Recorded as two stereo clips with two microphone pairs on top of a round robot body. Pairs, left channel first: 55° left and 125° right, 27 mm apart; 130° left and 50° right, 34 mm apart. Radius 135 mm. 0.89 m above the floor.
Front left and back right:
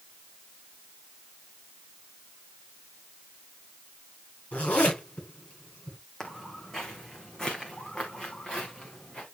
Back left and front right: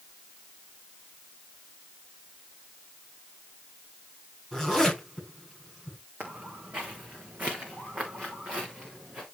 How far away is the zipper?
About 8.5 m.